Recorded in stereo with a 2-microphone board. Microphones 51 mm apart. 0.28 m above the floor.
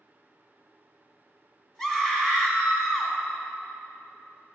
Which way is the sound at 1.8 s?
10° left (ahead or behind).